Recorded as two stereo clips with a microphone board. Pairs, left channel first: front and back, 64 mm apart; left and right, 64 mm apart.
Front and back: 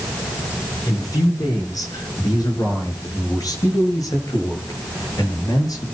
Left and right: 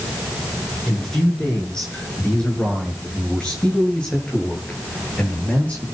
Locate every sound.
0.9 s a man speaking: 10° left, 6.5 m; by 5.8 s 20° left, 9 m